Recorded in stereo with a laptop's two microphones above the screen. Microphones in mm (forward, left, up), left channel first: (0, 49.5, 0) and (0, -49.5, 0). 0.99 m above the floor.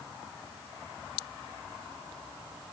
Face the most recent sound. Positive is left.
No sound to turn to.